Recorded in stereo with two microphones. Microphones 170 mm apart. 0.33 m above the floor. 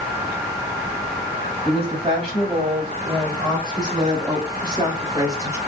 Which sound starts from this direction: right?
A woman speaking, at 1.6 s.